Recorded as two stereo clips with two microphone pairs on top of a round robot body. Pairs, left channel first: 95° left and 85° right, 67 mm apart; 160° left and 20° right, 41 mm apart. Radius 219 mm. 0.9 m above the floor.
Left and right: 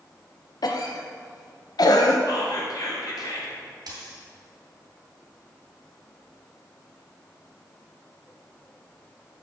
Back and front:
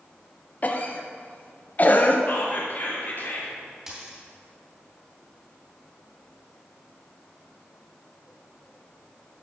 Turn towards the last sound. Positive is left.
turn(degrees=-100)